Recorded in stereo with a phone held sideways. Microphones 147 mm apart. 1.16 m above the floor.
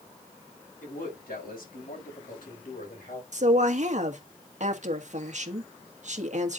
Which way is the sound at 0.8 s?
85° left.